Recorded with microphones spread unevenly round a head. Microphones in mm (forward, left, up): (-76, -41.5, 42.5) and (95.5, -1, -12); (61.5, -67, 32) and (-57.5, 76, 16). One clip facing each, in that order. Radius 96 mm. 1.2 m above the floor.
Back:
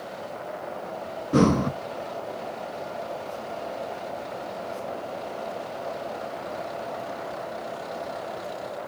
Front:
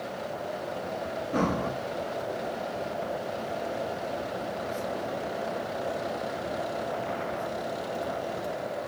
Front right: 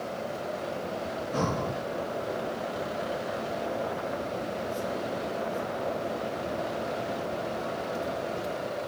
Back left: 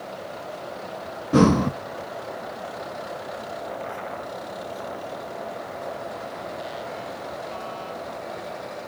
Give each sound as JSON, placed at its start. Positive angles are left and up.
{"t": 1.3, "sound": "breathing", "azimuth_deg": 155, "distance_m": 1.3}